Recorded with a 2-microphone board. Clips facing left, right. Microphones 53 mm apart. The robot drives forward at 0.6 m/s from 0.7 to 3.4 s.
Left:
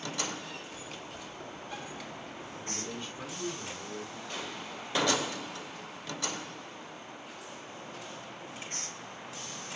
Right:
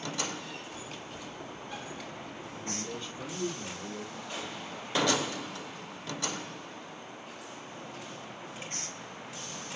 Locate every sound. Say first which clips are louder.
2.5 s a man speaking: right 2 dB; 15° left (ahead or behind), 2 m
4.3 s an explosion: even; 5° right (ahead or behind), 3.5 m